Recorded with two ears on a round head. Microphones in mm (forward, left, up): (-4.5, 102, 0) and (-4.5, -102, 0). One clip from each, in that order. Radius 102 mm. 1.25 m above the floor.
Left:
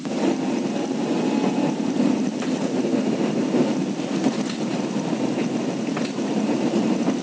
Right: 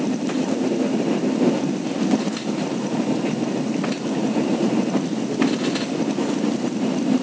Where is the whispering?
No whispering in this recording.